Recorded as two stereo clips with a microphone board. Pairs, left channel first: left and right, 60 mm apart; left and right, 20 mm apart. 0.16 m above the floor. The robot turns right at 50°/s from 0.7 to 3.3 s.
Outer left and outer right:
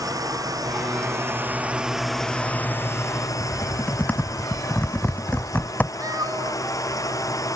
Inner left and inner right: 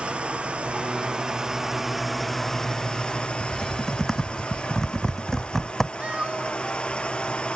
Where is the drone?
70° right; by 7.6 s 60° left.